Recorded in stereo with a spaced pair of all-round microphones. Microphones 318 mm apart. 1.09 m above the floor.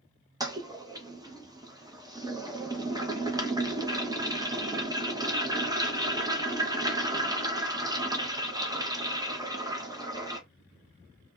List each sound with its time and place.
0.4 s a toilet flushing: 10° right (ahead or behind), 0.6 m